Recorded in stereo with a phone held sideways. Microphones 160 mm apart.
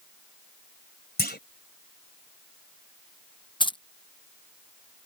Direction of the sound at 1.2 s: 80° left.